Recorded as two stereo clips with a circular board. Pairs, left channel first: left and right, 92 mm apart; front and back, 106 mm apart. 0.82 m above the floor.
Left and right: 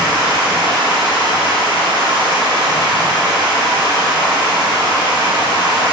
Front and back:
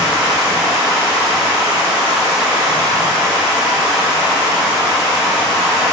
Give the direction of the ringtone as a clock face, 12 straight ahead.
I don't hear a ringtone.